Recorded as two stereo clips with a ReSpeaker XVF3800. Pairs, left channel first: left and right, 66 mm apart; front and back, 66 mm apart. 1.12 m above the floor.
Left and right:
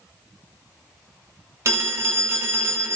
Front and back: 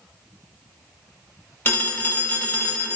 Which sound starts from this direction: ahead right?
A phone ringing, at 1.6 s.